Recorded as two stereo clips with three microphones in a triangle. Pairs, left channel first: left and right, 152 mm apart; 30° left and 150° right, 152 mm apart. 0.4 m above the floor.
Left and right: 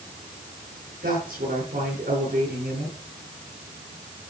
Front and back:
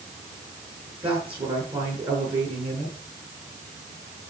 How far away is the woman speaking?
About 5.5 m.